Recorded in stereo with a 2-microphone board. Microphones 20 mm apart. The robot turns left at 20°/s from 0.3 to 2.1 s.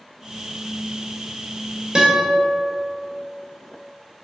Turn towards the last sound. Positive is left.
turn(degrees=-40)  # may be behind; listen again after turning